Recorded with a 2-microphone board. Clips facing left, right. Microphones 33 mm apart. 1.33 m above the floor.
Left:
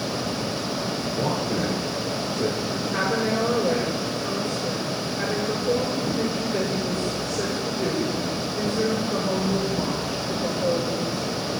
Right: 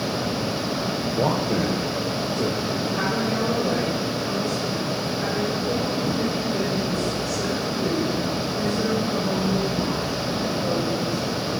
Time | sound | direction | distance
1.1 | a man speaking | 45° right (ahead or behind) | 0.7 m
2.9 | a woman speaking | 40° left (ahead or behind) | 6 m